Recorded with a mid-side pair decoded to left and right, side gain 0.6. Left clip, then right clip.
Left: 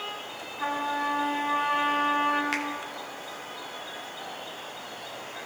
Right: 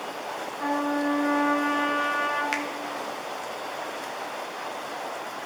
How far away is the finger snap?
About 1.2 m.